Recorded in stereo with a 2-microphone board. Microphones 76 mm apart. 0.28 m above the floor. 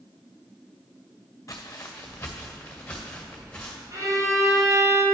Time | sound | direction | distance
1.5 | footsteps | 40° left (ahead or behind) | 1.2 m
3.9 | a violin | 50° right (ahead or behind) | 3 m